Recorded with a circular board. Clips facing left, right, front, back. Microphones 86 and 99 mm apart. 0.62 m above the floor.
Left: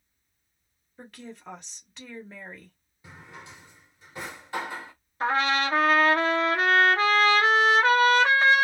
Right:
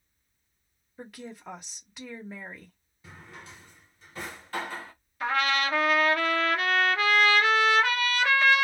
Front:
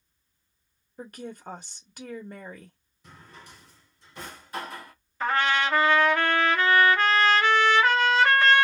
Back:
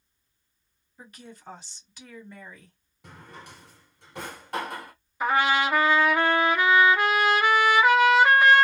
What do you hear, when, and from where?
1.0 s a woman speaking: 5° right, 0.9 m
3.0 s a drawer: 160° left, 1.3 m
5.2 s a trumpet: 110° left, 0.8 m